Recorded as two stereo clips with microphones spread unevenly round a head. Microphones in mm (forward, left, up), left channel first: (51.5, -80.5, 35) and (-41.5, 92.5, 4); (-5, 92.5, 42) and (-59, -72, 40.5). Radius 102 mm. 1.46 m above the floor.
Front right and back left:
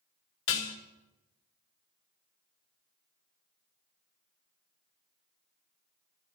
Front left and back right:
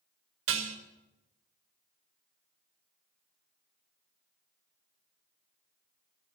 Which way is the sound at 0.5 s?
85° right.